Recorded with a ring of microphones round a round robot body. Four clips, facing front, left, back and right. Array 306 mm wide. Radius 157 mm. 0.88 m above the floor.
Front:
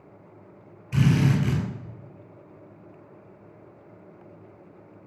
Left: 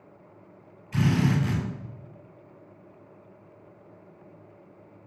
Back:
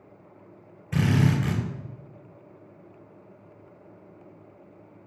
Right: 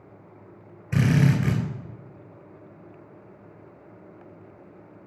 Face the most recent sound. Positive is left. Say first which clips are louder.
# right 2 dB, front 1 dB
turn(degrees=-115)